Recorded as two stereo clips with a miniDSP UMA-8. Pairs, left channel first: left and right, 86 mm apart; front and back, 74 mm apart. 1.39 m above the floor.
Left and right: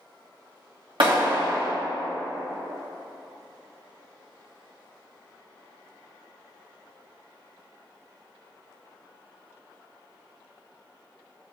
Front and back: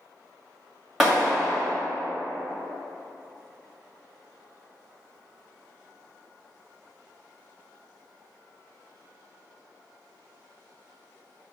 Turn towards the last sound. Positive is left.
turn(degrees=-95)